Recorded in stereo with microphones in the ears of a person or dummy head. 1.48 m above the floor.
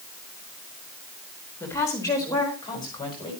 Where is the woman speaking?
10° left (ahead or behind), 4.5 m; by 3.3 s 20° left (ahead or behind), 7 m.